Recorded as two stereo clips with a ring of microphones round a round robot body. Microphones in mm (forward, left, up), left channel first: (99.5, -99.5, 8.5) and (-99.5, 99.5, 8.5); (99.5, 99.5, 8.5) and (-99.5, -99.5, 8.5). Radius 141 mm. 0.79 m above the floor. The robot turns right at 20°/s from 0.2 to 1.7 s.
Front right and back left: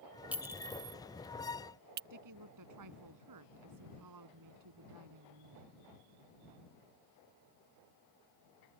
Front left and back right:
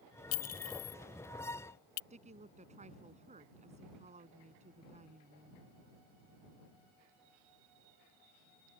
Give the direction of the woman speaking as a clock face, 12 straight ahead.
7 o'clock.